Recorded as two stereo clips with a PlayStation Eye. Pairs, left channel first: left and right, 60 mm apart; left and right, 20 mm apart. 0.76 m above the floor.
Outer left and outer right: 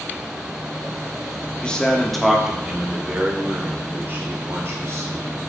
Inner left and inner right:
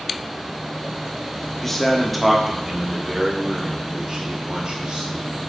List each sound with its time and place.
1.6 s a man speaking: 15° left (ahead or behind), 1.2 m; by 5.3 s 50° right (ahead or behind), 2.5 m